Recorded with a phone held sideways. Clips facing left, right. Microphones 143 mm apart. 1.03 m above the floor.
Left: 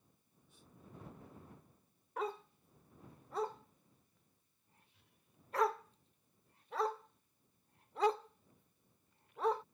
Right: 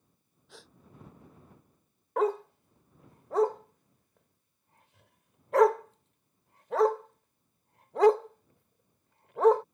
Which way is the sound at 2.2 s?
75° right (ahead or behind).